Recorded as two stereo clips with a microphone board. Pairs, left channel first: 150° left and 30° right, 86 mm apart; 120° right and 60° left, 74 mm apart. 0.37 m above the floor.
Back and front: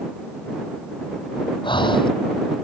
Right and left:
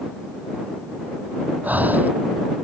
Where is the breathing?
130° left.